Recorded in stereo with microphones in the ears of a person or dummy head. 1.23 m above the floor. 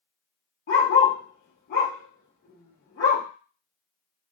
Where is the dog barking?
55° left (ahead or behind), 1.3 m.